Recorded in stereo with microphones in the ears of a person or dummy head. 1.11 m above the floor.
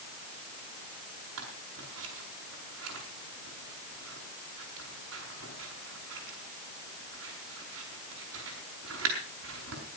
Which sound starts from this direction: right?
Scissors, at 1.4 s.